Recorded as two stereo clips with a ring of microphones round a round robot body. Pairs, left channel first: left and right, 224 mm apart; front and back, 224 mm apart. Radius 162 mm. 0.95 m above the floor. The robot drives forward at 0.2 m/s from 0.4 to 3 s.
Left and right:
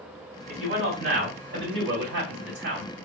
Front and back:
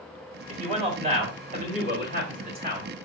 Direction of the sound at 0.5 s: 120° right.